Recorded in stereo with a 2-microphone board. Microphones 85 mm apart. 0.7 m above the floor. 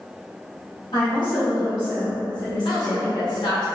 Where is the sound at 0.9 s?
70° left (ahead or behind), 1.9 m; by 3.2 s 40° left (ahead or behind), 2 m.